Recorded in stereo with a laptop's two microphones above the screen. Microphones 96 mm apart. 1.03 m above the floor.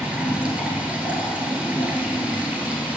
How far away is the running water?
About 1.4 m.